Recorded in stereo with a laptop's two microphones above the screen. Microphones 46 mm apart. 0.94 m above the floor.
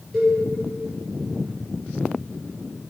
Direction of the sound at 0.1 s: 10° left (ahead or behind).